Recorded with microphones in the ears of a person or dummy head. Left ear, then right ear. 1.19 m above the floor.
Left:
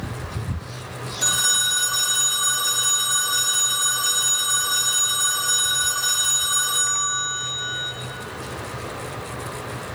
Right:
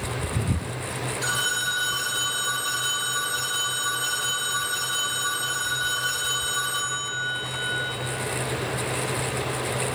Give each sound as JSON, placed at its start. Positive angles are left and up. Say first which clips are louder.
{"t": 1.2, "sound": "a phone ringing", "louder": "left 5 dB", "side_deg": 80, "distance_m": 3.0}